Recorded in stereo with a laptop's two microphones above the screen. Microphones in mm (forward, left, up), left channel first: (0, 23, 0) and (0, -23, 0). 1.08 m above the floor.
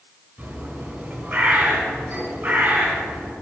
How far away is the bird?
About 3 m.